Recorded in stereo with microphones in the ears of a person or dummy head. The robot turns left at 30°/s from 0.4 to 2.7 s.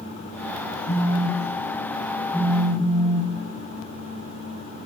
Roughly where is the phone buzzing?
Left.